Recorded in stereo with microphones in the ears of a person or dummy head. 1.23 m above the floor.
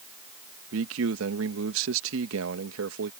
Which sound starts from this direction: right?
A man speaking, at 0.7 s.